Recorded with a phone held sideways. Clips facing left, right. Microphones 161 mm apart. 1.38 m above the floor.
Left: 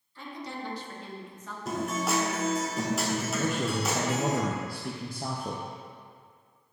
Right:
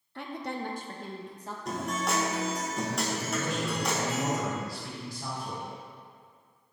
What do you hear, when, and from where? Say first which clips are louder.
0.1 s a woman speaking: right 3 dB; 70° right (ahead or behind), 0.7 m; by 1.6 s 35° right (ahead or behind), 1.2 m
1.6 s a guitar: left 2 dB; 5° left (ahead or behind), 1.3 m
3.4 s a man speaking: left 2 dB; 55° left (ahead or behind), 0.7 m